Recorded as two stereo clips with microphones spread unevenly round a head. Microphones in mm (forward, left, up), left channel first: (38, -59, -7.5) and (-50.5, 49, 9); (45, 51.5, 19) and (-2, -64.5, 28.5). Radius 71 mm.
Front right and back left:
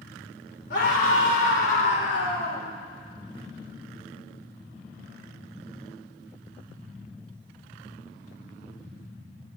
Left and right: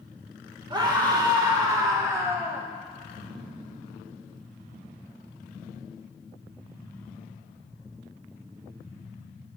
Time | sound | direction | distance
0.7 | a scream | 55° right | 3.5 m